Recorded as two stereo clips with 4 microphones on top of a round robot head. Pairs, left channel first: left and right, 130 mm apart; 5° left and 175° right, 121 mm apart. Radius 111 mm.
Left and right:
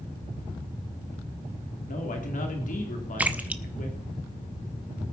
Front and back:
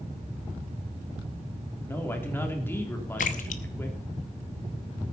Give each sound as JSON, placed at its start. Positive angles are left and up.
{"t": 1.9, "sound": "a man speaking", "azimuth_deg": 75, "distance_m": 3.0}
{"t": 3.2, "sound": "a splash", "azimuth_deg": -15, "distance_m": 0.5}